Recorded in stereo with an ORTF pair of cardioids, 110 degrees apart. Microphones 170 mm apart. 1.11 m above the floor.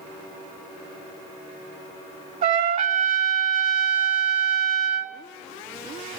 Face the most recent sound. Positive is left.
turn(degrees=-55)